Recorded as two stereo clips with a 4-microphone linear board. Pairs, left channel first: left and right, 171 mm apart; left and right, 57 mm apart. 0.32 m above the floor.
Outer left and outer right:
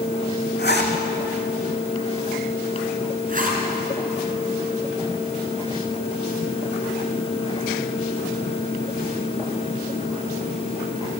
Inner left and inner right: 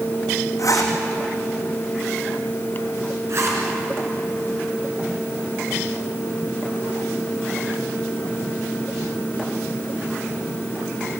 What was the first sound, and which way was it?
A zipper, 75° left (ahead or behind).